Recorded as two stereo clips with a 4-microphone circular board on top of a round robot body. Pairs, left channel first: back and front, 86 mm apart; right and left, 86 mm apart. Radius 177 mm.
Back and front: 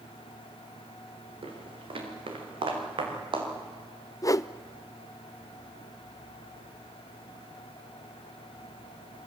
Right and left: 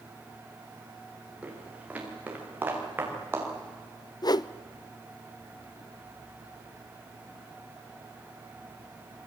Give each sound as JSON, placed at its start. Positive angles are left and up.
{"t": 1.4, "sound": "footsteps", "azimuth_deg": 15, "distance_m": 6.5}
{"t": 4.2, "sound": "a whoosh", "azimuth_deg": -130, "distance_m": 0.6}